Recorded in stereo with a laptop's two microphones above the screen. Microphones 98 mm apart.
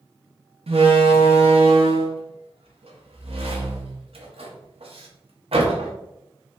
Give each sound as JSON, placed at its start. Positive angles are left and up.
{"t": 0.7, "sound": "a door slam", "side_deg": -85, "distance_m": 0.7}